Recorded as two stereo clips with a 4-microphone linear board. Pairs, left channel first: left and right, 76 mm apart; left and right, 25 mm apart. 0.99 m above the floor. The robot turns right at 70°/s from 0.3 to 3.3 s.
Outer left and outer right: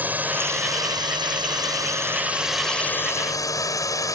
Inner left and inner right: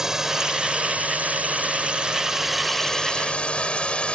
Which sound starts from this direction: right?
A drone, at 0.0 s.